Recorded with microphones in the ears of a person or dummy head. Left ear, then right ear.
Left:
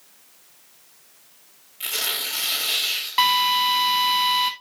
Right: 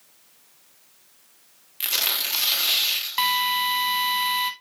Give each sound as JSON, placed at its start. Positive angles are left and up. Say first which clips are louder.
{"t": 1.8, "sound": "tearing paper", "louder": "right 1 dB", "side_deg": -45, "distance_m": 2.5}
{"t": 3.2, "sound": "a drill", "louder": "left 5 dB", "side_deg": -5, "distance_m": 1.2}